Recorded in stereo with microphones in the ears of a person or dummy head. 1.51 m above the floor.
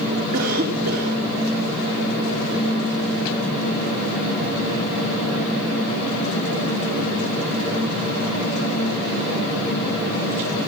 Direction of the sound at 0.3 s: 50° right (ahead or behind).